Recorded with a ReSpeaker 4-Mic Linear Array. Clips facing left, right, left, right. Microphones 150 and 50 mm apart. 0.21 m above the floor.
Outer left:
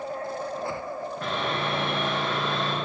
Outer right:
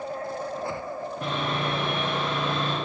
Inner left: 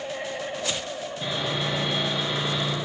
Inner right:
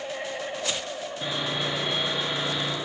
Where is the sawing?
20° right (ahead or behind), 3.5 m.